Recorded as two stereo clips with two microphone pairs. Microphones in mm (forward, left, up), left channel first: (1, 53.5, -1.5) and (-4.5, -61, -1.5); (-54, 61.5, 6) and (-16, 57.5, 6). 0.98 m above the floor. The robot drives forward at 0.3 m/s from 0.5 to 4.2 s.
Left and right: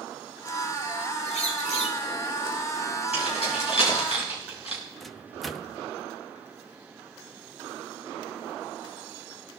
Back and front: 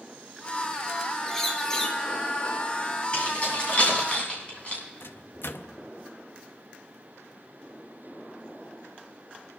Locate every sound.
1.3 s a bird: 95° left, 2 m; by 2.0 s 100° left, 2 m
3.1 s keys jangling: 115° left, 6.5 m; by 4.8 s 120° left, 6.5 m
5.0 s a microwave: straight behind, 0.8 m